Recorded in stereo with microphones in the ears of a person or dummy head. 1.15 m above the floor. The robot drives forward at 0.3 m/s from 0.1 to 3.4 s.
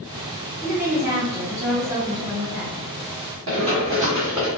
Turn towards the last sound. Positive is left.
turn(degrees=0)  # may be behind; listen again after turning